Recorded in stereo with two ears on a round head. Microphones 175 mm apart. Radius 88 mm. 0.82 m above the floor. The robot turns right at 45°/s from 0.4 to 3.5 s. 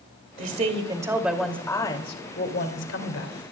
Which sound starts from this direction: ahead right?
A woman speaking, at 0.4 s.